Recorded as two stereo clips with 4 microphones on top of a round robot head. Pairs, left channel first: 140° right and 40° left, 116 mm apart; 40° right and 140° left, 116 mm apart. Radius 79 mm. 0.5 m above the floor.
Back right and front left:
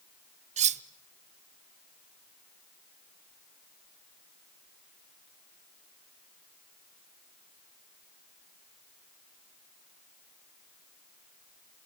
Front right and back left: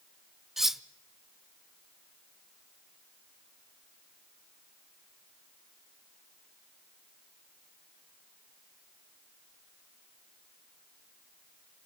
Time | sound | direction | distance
0.6 | cutlery clinking | 55° left | 0.7 m